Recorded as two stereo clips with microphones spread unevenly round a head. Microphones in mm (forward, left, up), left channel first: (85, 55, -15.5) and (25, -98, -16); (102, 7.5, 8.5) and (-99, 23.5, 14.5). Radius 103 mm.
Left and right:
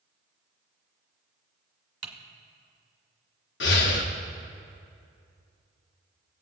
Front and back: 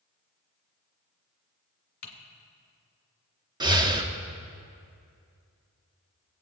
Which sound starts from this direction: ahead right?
Typing on a keyboard, at 2.0 s.